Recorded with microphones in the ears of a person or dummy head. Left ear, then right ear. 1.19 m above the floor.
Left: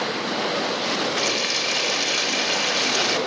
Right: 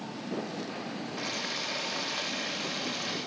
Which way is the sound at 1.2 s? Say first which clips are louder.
Left 7 dB; 75° left (ahead or behind).